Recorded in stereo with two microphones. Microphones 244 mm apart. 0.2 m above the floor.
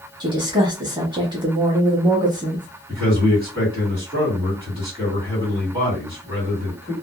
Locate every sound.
0.2 s a woman speaking: 20° right (ahead or behind), 1.0 m
2.9 s a man speaking: 20° right (ahead or behind), 1.8 m